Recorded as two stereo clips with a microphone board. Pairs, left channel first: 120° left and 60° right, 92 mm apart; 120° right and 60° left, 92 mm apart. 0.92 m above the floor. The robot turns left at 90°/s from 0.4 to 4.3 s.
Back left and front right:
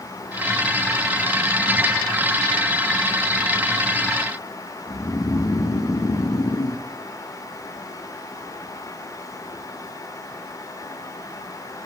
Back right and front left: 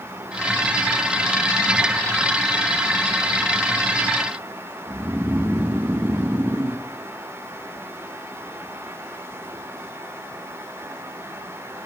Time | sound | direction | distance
4.9 | snoring | 115° left | 0.6 m